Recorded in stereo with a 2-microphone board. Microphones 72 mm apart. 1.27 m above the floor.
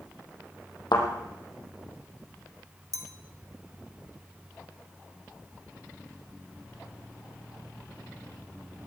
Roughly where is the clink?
Right.